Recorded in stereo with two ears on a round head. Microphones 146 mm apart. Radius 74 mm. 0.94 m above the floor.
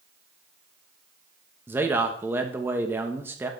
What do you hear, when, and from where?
1.7 s a man speaking: 15° right (ahead or behind), 1.2 m